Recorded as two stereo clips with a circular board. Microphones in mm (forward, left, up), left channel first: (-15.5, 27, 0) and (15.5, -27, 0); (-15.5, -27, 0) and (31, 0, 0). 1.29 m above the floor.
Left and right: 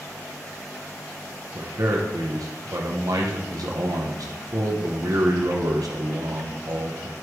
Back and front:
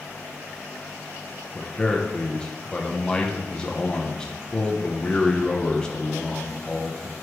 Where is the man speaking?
70° right, 0.9 m.